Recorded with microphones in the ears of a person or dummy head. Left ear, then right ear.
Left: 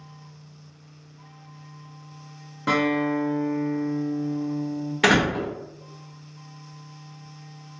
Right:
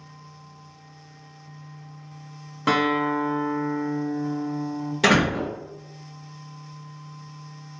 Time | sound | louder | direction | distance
2.7 | a guitar | right 1 dB | 20° right (ahead or behind) | 0.5 m
5.0 | a door slam | even | 25° left (ahead or behind) | 0.6 m